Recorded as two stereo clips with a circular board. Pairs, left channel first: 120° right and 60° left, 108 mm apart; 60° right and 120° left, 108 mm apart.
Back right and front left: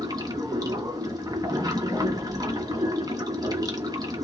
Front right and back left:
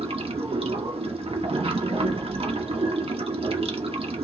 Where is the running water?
110° left, 0.9 m.